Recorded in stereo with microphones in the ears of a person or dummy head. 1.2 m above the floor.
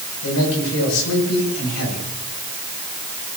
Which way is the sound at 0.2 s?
85° left.